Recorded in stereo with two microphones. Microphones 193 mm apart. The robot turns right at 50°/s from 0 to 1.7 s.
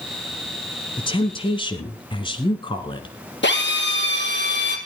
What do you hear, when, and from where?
1.0 s a woman speaking: 25° left (ahead or behind), 1.5 m
3.4 s a drill: 70° left (ahead or behind), 3.5 m